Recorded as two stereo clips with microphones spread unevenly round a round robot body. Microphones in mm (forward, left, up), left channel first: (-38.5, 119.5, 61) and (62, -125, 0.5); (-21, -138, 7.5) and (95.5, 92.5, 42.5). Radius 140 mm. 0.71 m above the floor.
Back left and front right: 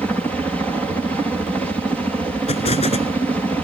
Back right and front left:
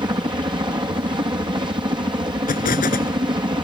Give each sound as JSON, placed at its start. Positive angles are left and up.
{"t": 0.0, "sound": "a helicopter", "azimuth_deg": 0}
{"t": 2.5, "sound": "an explosion", "azimuth_deg": 180}